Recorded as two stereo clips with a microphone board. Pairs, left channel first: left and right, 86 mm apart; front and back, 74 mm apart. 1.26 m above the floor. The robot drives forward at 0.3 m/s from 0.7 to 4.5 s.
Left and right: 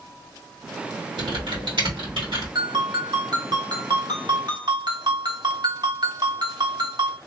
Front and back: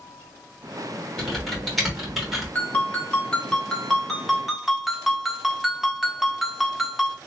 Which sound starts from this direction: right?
Typing on a keyboard, at 1.2 s.